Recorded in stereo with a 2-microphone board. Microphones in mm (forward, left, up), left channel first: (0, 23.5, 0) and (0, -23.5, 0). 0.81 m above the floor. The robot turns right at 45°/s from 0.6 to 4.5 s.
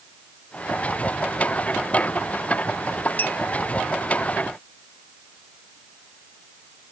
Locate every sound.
3.2 s a clink: 40° left (ahead or behind); by 3.4 s 35° left (ahead or behind)